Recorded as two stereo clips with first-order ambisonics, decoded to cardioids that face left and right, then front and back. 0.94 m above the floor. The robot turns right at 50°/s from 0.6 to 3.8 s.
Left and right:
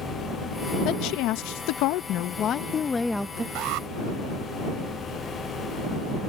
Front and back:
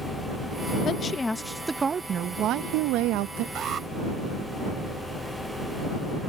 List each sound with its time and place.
0.8 s a woman speaking: 60° left; by 3.5 s 170° right
3.5 s an alarm: 130° right; by 3.9 s 115° right